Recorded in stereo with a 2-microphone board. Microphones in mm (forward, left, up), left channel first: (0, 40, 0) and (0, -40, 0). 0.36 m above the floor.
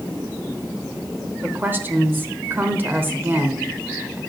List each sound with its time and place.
1.4 s a woman speaking: 25° right (ahead or behind), 0.9 m